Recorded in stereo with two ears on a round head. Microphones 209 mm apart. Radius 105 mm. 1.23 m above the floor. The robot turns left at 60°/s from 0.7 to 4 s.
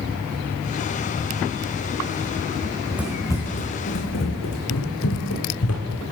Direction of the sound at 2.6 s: 30° right (ahead or behind).